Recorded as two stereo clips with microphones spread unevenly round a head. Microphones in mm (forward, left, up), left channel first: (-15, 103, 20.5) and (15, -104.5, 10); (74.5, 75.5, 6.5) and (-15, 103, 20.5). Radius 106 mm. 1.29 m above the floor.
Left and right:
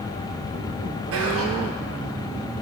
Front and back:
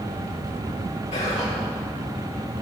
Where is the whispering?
55° right, 0.9 m.